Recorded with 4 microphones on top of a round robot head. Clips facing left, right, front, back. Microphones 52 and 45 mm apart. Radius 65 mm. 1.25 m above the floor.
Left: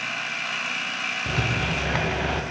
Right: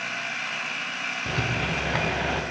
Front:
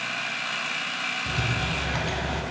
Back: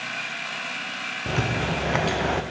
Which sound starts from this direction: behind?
A rattle, at 1.3 s.